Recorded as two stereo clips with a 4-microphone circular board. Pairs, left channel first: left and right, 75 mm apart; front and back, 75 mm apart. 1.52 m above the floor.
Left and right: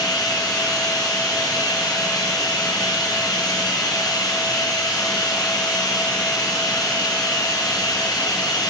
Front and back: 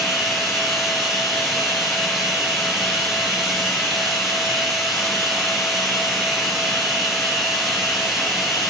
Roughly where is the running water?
Left.